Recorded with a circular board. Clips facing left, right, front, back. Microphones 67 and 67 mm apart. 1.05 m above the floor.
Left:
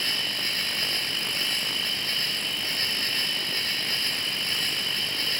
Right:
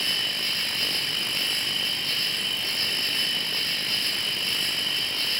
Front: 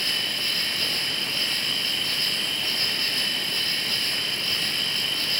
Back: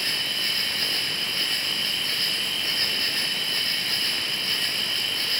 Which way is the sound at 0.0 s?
130° left.